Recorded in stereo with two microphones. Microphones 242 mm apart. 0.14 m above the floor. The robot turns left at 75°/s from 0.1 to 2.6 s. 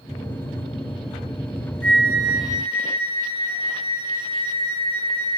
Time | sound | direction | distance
1.8 | a flute | 10° left | 0.5 m